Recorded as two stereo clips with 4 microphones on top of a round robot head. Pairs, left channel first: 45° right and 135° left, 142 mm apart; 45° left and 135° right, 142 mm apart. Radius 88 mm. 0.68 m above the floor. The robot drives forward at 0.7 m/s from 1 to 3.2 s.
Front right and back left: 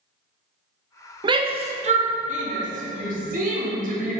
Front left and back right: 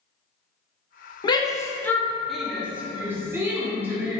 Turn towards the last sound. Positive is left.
turn(degrees=150)